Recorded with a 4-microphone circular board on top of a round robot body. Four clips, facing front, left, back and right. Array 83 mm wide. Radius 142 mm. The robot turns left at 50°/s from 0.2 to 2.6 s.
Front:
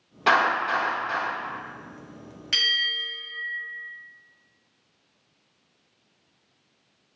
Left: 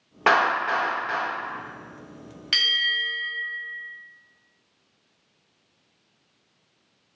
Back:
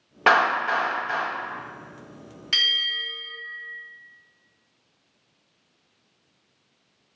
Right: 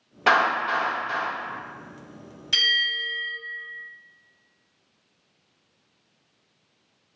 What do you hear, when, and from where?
0.3 s a clap: 140° left, 1.6 m; by 1.2 s 95° left, 1.6 m
2.5 s a bell: 80° left, 1.9 m; by 3.3 s 75° left, 1.9 m